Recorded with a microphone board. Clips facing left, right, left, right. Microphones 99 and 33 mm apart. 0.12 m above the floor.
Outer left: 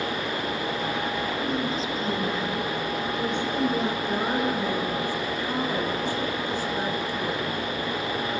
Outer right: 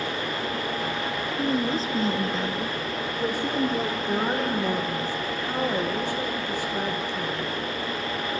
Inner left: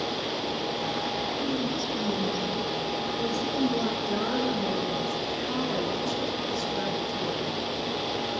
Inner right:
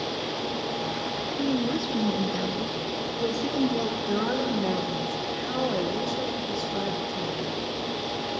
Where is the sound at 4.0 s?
15° right (ahead or behind), 7.5 m.